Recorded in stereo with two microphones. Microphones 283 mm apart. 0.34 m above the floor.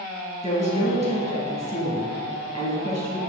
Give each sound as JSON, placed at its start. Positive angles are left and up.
{"t": 0.4, "sound": "a woman speaking", "side_deg": 25, "distance_m": 2.0}